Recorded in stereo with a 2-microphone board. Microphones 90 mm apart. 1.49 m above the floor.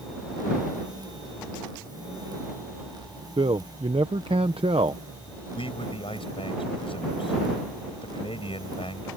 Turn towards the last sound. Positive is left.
turn(degrees=80)